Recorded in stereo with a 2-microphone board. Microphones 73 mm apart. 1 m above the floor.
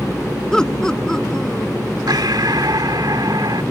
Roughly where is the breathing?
Right.